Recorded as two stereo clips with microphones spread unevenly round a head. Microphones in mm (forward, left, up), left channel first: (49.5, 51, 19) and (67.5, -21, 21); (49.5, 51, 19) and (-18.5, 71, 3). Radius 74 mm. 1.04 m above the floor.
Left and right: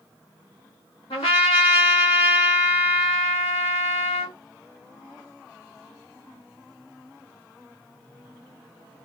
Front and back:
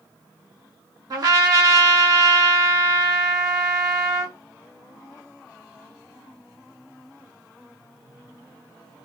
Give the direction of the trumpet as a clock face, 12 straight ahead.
8 o'clock.